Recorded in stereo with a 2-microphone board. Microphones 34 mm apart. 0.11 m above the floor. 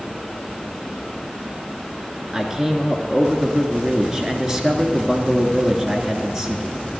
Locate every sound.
2.3 s a man speaking: 20° right (ahead or behind), 1.2 m